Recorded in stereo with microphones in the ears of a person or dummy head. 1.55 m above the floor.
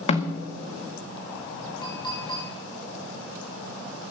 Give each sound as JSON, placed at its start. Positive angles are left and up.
{"t": 0.1, "sound": "a snare drum", "side_deg": 40, "distance_m": 1.9}
{"t": 1.8, "sound": "a clink", "side_deg": 25, "distance_m": 7.0}